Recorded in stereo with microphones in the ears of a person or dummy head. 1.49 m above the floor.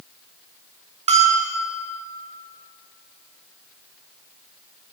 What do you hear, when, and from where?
1.1 s a bell: 30° right (ahead or behind), 1.3 m